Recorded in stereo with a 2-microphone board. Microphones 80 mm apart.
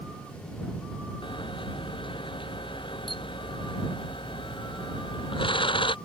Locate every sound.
1.2 s a camera shutter: 80° left